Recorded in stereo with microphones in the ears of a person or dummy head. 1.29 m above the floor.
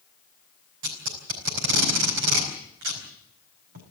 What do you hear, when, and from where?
0.8 s tape being pulled: 65° right (ahead or behind), 4.5 m